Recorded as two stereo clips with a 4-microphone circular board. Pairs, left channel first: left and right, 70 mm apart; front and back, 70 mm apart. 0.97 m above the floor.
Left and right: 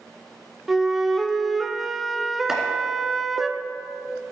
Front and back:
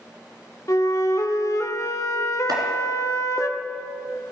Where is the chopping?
175° right, 2 m.